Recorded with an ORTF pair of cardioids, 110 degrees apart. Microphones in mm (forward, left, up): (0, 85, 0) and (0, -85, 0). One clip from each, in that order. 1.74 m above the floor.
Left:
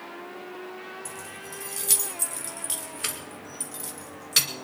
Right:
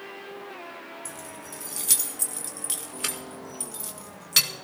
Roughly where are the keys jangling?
Ahead.